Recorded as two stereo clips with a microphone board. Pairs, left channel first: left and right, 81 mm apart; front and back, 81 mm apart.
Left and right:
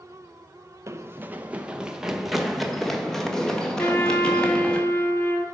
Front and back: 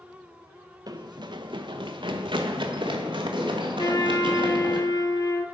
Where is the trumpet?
30° left, 0.8 m.